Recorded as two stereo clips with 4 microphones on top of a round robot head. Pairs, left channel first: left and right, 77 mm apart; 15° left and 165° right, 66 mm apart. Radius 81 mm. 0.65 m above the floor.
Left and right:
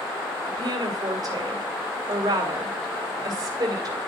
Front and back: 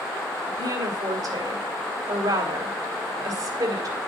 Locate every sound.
0.5 s a woman speaking: 135° right, 3 m